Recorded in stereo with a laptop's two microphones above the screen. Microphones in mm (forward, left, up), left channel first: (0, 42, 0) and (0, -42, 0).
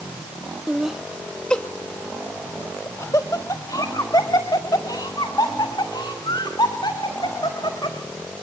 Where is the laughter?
15° right (ahead or behind), 1.0 m; by 8.0 s 60° left (ahead or behind), 4 m.